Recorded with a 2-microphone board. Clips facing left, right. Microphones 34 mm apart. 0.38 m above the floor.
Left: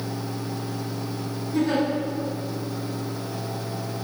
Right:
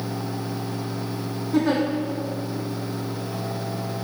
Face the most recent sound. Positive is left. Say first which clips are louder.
# right 2 dB
turn(degrees=-70)  # may be behind; listen again after turning